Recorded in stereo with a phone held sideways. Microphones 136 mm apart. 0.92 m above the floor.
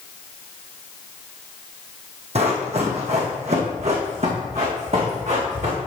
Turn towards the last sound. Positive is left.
turn(degrees=-50)  # may be behind; listen again after turning